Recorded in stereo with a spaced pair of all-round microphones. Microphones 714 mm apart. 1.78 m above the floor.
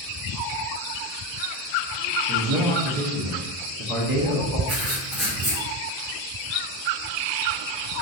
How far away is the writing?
About 1.8 m.